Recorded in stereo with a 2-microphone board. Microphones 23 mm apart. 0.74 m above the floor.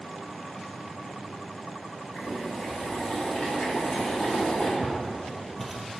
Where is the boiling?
40° left (ahead or behind), 1.8 m.